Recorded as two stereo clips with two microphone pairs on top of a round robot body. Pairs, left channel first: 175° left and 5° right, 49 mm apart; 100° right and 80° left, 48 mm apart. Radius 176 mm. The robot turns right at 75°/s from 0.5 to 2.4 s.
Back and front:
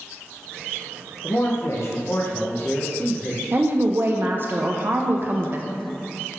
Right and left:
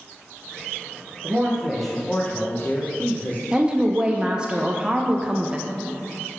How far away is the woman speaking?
About 0.5 m.